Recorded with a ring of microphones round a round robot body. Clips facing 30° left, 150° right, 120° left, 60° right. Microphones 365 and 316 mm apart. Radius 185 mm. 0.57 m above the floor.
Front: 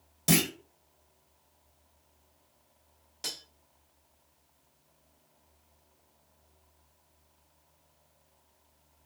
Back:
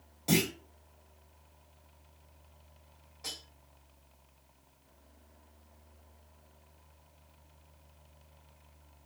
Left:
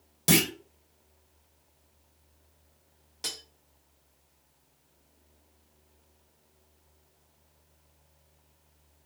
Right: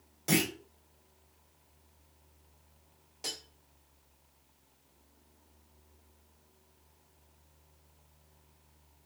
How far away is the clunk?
About 0.9 m.